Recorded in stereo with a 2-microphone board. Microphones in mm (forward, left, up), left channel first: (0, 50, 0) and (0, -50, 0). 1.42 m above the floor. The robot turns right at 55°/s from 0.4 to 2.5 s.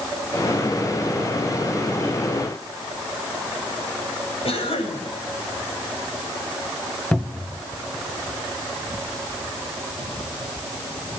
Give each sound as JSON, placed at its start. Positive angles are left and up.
{"t": 4.5, "sound": "a cough", "side_deg": 75, "distance_m": 9.0}
{"t": 7.1, "sound": "a cupboard door", "side_deg": 10, "distance_m": 1.3}